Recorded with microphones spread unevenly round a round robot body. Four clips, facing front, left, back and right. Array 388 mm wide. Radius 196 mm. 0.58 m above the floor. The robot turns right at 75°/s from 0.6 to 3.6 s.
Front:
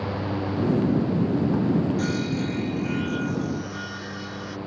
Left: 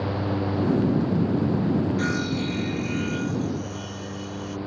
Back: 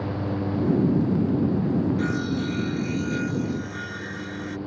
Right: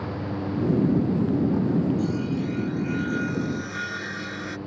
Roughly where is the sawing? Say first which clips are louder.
Even, even; left.